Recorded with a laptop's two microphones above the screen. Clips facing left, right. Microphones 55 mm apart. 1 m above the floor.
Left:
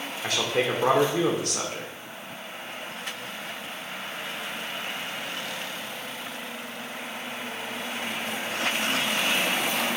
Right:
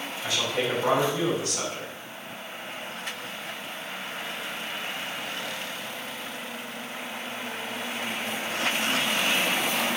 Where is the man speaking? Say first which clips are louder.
Left 2 dB; 65° left (ahead or behind), 2.5 m.